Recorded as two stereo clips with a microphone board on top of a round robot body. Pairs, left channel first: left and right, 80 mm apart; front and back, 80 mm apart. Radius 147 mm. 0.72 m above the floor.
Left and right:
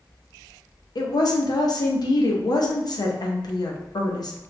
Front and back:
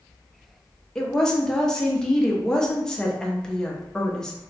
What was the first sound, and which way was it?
A woman speaking, 80° left.